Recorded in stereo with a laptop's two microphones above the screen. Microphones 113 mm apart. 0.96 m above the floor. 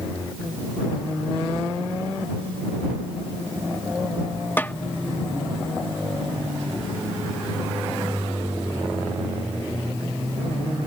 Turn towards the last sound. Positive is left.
turn(degrees=20)  # may be behind; listen again after turning